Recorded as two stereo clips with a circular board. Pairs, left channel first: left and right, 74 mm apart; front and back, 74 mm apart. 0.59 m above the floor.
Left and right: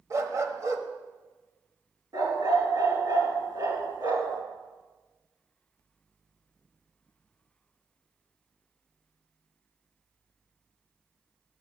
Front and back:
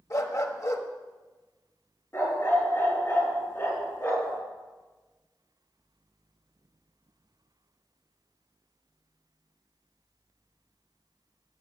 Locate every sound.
0.1 s a dog barking: 45° right, 1.2 m
2.1 s a dog barking: 55° right, 3.5 m